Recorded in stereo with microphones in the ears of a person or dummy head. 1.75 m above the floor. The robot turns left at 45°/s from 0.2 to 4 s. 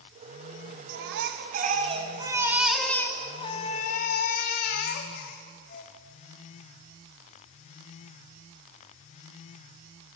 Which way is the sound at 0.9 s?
95° right.